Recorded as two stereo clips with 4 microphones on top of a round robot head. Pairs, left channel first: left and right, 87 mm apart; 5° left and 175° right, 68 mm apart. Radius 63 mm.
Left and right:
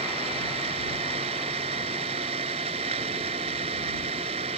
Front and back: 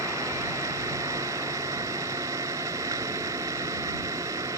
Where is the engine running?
115° right.